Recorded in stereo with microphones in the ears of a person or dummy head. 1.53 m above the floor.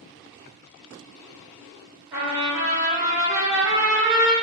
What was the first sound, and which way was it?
A trumpet, 15° right (ahead or behind).